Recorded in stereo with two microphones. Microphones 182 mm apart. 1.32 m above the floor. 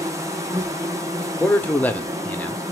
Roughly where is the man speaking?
Centre.